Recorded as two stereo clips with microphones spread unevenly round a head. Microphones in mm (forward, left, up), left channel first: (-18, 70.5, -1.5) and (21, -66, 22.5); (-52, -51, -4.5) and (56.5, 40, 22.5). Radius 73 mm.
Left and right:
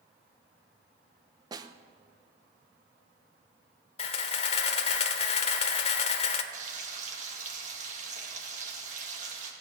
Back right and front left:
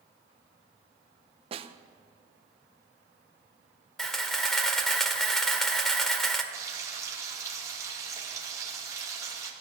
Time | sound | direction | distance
1.5 | a snare drum | 10° right | 0.8 m
4.0 | a camera shutter | 110° left | 1.1 m
6.5 | frying | 30° right | 2.5 m